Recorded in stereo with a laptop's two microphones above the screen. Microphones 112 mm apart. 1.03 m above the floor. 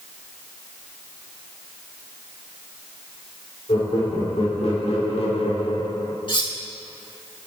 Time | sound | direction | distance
3.7 | laughter | 60° left (ahead or behind) | 3.5 m
6.3 | cutlery clinking | 50° left (ahead or behind) | 1.5 m